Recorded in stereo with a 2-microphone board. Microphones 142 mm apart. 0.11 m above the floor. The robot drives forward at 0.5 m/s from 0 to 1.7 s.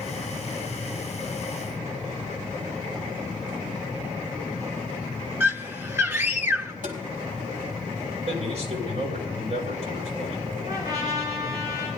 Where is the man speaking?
50° right (ahead or behind), 5.5 m.